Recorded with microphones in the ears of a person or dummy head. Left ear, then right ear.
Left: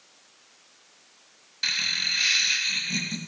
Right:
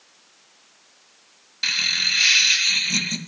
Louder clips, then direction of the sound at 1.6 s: Right 4 dB; 15° right (ahead or behind).